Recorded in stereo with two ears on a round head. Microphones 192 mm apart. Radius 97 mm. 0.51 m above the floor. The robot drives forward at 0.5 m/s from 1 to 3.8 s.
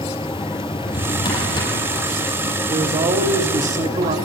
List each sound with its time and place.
0.7 s a drawer: 20° left (ahead or behind), 4.5 m
2.7 s a man speaking: 25° right (ahead or behind), 1.4 m; by 4.2 s 30° right (ahead or behind), 1.2 m